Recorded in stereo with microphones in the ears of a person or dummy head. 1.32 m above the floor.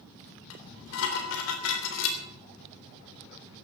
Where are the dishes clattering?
80° left, 3.5 m.